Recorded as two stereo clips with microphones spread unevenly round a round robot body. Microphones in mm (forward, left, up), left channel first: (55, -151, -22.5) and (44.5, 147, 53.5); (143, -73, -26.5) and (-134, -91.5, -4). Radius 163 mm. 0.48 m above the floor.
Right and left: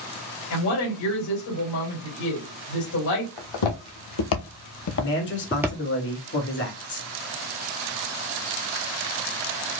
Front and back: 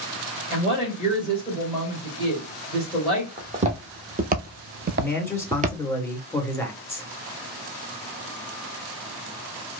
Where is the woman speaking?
105° right, 2.5 m.